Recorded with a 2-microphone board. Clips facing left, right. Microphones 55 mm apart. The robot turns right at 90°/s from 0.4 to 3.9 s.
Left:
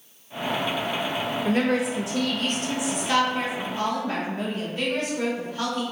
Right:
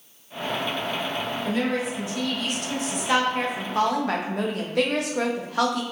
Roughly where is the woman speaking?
Ahead left.